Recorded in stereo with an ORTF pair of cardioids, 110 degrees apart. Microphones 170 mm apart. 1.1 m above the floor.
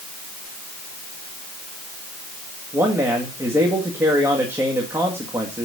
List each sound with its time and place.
2.7 s a man speaking: 15° right, 1.9 m